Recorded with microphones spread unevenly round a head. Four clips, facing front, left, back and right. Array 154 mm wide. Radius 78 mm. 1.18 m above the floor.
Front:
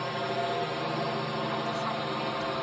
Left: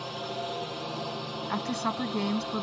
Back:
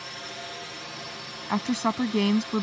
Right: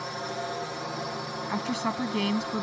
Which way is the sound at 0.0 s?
Straight ahead.